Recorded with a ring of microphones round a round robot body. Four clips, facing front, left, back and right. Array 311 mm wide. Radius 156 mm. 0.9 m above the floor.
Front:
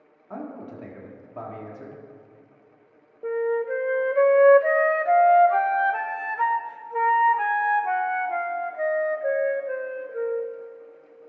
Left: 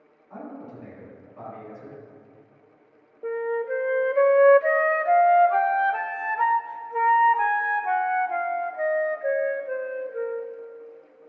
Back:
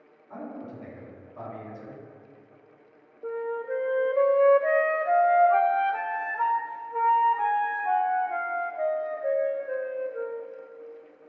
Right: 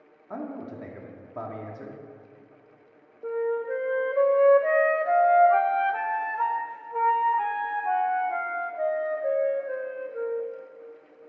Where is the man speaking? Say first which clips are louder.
Right 3 dB, front 2 dB; 55° right, 1.6 m.